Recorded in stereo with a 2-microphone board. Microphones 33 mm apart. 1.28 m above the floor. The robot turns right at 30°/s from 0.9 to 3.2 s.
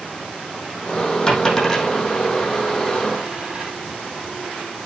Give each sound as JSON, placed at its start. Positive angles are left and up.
{"t": 1.3, "sound": "a dropped coin", "side_deg": 20, "distance_m": 4.5}